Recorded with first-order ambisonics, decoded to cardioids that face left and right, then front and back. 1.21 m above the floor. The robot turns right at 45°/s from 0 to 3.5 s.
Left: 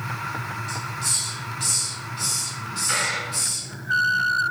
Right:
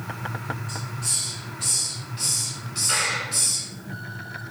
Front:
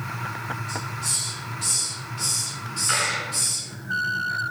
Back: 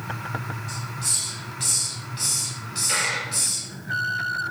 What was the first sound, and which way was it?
A hiss, 110° left.